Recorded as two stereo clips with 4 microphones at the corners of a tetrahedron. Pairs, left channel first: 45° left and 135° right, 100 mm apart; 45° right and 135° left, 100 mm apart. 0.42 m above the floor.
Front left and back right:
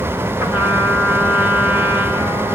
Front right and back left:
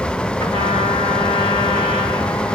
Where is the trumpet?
65° right, 2.5 m.